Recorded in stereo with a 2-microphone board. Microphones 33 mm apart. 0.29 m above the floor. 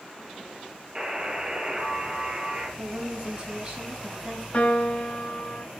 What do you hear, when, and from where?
0.9 s a buzzer: 25° right (ahead or behind), 3 m
2.8 s a woman speaking: 35° right (ahead or behind), 4.5 m
4.5 s a piano: 35° left (ahead or behind), 2.0 m